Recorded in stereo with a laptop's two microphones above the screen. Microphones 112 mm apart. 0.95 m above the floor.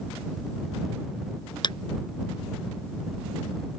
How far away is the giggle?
I don't hear a giggle.